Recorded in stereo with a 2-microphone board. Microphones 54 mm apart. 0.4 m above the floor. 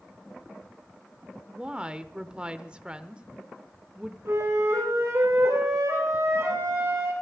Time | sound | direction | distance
1.5 | a woman speaking | 20° right (ahead or behind) | 0.8 m
4.2 | a flute | 60° right (ahead or behind) | 8.5 m